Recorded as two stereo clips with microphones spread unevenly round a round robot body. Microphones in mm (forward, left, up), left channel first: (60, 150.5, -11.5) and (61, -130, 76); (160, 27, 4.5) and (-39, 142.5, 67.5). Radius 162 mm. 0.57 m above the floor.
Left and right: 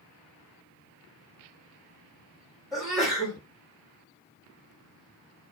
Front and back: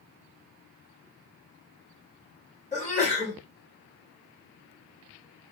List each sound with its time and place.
2.7 s a sneeze: 10° left, 1.8 m